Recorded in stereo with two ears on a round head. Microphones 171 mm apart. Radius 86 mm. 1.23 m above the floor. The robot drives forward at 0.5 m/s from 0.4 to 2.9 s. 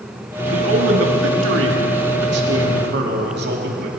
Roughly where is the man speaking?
Right.